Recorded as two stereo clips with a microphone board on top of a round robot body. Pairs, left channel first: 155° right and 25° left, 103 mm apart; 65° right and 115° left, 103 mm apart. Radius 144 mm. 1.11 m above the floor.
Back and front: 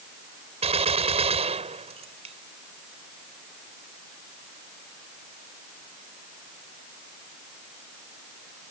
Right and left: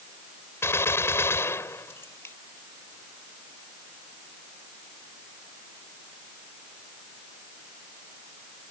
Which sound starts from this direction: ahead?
A gunshot, at 0.6 s.